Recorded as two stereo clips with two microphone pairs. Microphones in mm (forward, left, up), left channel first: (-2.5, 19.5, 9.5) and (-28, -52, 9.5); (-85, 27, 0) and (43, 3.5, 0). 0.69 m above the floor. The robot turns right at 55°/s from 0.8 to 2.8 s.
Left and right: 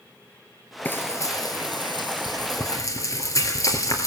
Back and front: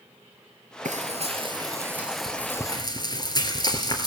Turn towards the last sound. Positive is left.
turn(degrees=110)